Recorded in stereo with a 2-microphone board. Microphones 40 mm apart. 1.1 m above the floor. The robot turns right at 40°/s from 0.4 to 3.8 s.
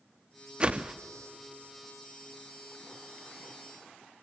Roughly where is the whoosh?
Right.